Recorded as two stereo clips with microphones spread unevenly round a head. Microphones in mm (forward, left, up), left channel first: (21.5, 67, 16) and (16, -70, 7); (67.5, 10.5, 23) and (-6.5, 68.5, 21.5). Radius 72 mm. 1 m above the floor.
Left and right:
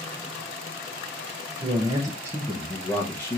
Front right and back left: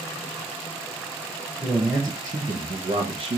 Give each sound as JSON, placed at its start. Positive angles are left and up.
{"t": 1.6, "sound": "a man speaking", "azimuth_deg": -140, "distance_m": 0.8}